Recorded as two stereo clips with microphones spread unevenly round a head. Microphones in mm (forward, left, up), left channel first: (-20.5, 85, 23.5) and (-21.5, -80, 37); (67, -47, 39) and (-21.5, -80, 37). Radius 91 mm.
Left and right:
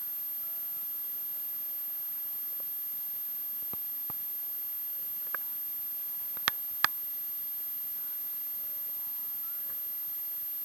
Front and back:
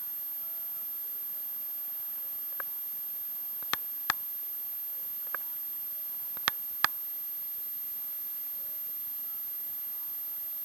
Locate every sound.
Only background noise.